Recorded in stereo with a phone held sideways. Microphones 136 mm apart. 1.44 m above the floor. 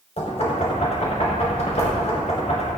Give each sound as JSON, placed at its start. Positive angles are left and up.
{"t": 0.2, "sound": "knocking", "side_deg": 55, "distance_m": 5.0}